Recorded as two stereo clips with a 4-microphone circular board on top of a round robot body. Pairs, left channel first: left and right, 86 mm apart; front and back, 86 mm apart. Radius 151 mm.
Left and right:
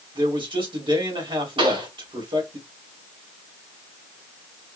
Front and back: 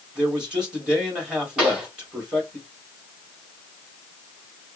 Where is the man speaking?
100° right, 3 m.